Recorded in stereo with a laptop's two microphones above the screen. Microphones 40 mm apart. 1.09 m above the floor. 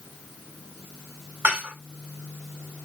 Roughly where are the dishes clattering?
Right.